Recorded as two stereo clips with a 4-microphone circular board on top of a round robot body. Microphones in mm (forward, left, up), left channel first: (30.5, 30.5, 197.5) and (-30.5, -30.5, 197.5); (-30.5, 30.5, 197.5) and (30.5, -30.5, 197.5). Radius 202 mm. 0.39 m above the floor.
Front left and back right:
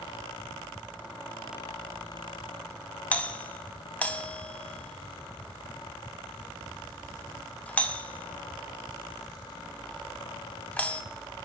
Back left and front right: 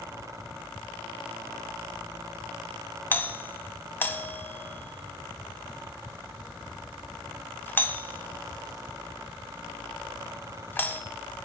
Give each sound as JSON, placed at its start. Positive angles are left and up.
{"t": 3.1, "sound": "a doorbell", "azimuth_deg": 100, "distance_m": 1.2}